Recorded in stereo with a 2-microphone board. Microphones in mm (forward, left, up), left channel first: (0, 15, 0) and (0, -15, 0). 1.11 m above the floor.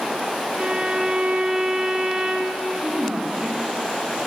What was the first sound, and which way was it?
A violin, 25° right (ahead or behind).